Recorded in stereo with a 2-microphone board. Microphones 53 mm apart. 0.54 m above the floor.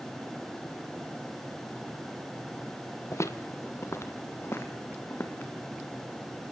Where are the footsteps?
60° left (ahead or behind), 0.9 m; by 5.5 s 40° left (ahead or behind), 2.5 m.